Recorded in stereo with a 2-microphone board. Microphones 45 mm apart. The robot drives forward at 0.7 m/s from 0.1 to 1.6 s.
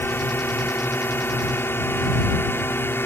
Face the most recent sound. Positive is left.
turn(degrees=70)  # may be behind; listen again after turning